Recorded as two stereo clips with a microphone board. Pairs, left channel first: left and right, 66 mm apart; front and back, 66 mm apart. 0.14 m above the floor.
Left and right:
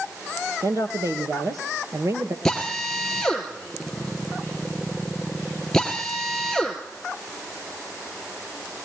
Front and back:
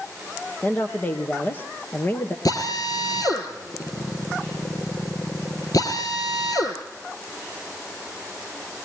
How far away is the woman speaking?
About 3 m.